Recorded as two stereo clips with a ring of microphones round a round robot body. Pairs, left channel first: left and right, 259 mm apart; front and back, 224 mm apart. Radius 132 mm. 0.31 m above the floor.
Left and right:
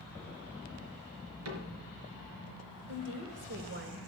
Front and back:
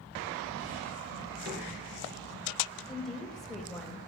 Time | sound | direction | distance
1.4 | a cupboard door | 125° right | 4 m
2.9 | a woman speaking | 90° right | 1.8 m